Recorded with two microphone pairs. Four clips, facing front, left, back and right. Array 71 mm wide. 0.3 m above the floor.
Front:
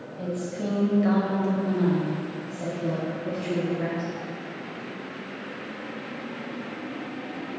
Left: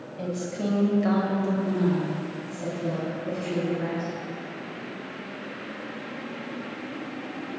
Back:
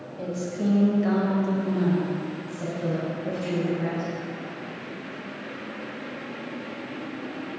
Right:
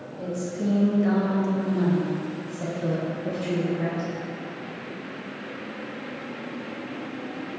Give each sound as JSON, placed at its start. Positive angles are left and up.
{"t": 0.2, "sound": "a woman speaking", "azimuth_deg": 105, "distance_m": 1.6}